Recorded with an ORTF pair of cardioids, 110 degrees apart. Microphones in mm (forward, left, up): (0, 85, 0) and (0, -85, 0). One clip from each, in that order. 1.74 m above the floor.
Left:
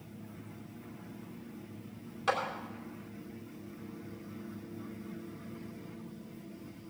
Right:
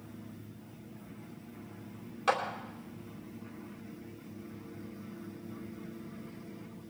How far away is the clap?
About 4 m.